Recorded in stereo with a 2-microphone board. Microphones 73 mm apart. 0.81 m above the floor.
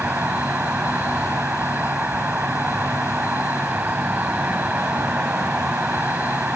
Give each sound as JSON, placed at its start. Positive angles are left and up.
{"t": 0.0, "sound": "an insect", "side_deg": -25}